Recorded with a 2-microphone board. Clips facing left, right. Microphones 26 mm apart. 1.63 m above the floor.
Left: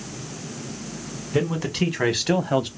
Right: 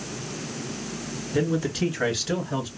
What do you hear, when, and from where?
1.3 s a man speaking: 80° left, 2.5 m; by 2.7 s 75° left (ahead or behind), 0.7 m